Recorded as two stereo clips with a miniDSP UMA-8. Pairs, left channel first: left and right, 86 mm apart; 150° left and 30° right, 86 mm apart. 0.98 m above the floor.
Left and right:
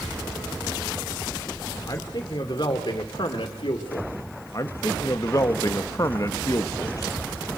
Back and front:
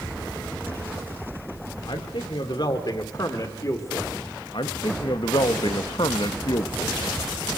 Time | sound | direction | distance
1.9 | a man speaking | 130° left | 2.5 m
4.5 | a man speaking | 135° left | 1.2 m